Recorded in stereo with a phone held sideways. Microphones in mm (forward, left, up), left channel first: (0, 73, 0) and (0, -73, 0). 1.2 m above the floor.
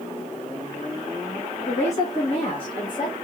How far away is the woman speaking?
About 1.4 m.